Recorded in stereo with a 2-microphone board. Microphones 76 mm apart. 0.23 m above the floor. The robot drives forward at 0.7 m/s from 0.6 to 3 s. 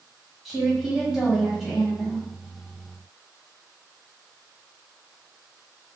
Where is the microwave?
No microwave in this recording.